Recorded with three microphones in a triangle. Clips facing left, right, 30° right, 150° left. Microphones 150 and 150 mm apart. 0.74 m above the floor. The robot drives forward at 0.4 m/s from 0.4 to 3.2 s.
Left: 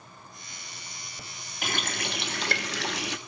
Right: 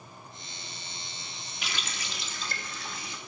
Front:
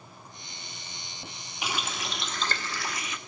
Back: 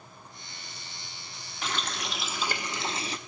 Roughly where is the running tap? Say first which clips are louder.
Left 8 dB, even; ahead left.